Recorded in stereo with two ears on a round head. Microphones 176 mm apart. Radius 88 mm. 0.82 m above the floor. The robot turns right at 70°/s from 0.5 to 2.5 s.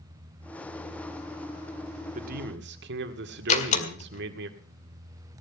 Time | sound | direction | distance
2.1 | a man speaking | 40° right (ahead or behind) | 1.9 m
3.5 | a door slam | 40° left (ahead or behind) | 2.0 m